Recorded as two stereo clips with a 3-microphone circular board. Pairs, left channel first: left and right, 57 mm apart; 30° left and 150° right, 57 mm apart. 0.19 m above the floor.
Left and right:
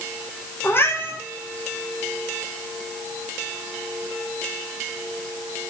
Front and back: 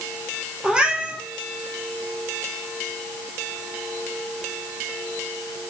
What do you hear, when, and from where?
0.6 s a cat meowing: 140° left, 2.0 m